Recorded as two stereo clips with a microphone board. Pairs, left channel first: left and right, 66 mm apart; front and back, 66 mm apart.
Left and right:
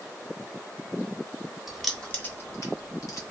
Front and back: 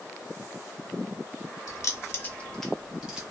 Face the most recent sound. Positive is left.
turn(degrees=105)